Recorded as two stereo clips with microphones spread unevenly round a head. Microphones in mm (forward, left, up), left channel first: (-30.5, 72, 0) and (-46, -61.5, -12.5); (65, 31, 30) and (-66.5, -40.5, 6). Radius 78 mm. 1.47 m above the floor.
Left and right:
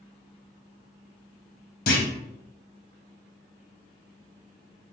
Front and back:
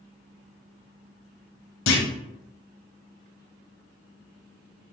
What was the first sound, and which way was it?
A clunk, 40° left.